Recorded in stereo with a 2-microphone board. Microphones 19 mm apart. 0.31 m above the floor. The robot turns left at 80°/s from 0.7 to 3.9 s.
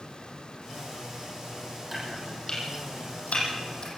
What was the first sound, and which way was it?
Chopping, 15° right (ahead or behind).